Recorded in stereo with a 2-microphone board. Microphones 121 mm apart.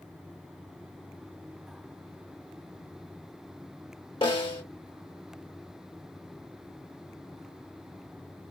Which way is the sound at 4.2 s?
45° left (ahead or behind).